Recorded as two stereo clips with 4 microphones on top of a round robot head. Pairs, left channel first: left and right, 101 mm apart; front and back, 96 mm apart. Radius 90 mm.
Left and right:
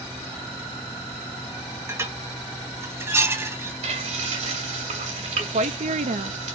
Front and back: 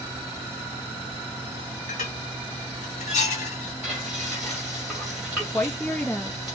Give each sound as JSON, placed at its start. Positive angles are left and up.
{"t": 1.9, "sound": "dishes clattering", "azimuth_deg": -25, "distance_m": 1.3}
{"t": 3.8, "sound": "frying", "azimuth_deg": -90, "distance_m": 2.0}
{"t": 5.5, "sound": "a woman speaking", "azimuth_deg": -75, "distance_m": 0.7}